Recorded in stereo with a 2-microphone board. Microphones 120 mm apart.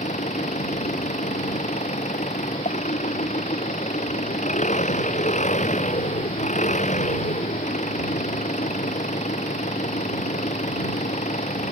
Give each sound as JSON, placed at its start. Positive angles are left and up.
{"t": 0.0, "sound": "an engine running", "side_deg": 85}